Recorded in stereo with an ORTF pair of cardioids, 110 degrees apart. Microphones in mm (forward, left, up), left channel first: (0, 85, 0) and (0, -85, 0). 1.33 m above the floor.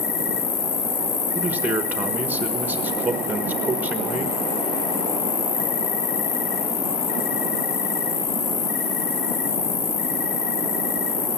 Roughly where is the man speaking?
Ahead.